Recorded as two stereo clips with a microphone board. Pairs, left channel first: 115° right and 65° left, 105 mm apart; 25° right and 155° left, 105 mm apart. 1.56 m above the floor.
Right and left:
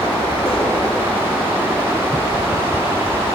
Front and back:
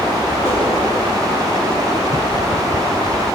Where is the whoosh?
90° right, 2.5 m.